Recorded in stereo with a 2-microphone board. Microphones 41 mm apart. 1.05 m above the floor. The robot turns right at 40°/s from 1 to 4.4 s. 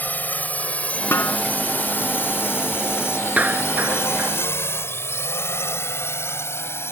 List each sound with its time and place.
0.0 s a drone: 45° left (ahead or behind); by 6.9 s 75° left (ahead or behind)
1.1 s a snare drum: 70° left (ahead or behind); by 1.4 s 80° left
3.4 s a clap: 35° right (ahead or behind); by 4.3 s 75° right (ahead or behind)